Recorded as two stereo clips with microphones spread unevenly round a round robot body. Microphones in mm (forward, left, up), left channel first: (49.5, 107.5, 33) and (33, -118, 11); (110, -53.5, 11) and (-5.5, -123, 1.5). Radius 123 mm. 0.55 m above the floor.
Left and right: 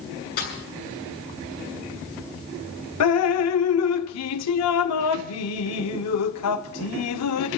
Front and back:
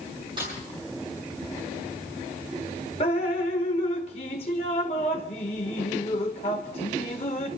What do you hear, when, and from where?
0.4 s a snare drum: 140° left, 6.5 m
3.0 s dripping: 90° left, 0.9 m